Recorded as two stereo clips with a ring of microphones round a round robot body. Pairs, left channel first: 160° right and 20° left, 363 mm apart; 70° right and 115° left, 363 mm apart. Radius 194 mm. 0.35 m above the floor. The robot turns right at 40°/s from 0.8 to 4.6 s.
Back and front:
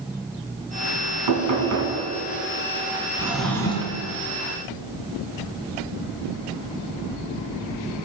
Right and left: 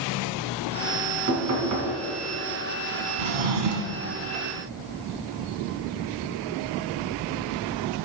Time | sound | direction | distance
1.3 | knocking | 50° left | 2.5 m
3.2 | a drawer | 105° left | 1.3 m